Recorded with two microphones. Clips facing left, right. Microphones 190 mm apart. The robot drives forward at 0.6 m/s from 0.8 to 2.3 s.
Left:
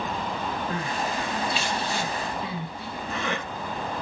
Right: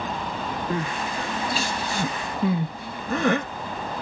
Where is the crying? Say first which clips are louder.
Right 1 dB; 30° right (ahead or behind), 1.6 m; by 3.5 s 50° right (ahead or behind), 1.1 m.